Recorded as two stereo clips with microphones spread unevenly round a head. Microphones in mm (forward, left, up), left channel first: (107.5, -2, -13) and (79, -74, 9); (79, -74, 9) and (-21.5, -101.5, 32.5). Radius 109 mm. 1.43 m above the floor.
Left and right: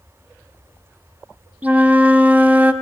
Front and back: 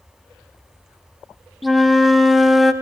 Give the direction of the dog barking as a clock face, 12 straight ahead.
No dog barking in this recording.